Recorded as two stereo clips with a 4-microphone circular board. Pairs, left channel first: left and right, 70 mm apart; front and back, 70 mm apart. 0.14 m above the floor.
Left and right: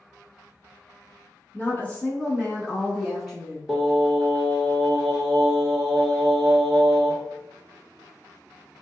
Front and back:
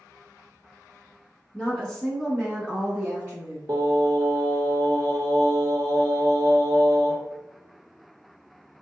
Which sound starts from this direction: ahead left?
A woman speaking, at 1.5 s.